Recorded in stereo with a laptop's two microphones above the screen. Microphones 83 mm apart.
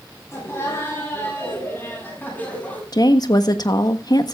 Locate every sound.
0.3 s laughter: 35° left (ahead or behind), 8 m; by 2.8 s 20° left (ahead or behind), 7.5 m
2.9 s a woman speaking: 55° left (ahead or behind), 1.2 m